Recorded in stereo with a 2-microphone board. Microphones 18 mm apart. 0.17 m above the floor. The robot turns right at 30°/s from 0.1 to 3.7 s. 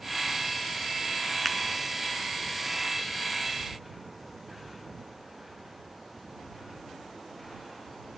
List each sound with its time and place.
1.4 s a finger snap: centre (ahead or behind)